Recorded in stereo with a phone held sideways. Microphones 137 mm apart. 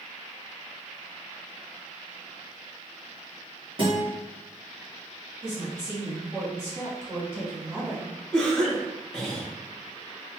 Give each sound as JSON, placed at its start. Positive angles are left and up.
{"t": 3.8, "sound": "a guitar", "side_deg": -40, "distance_m": 1.3}
{"t": 5.4, "sound": "a woman speaking", "side_deg": -25, "distance_m": 1.4}
{"t": 8.3, "sound": "a cough", "side_deg": 5, "distance_m": 1.4}